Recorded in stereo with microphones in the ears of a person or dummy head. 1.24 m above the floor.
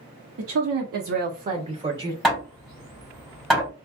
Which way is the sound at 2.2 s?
Centre (ahead or behind).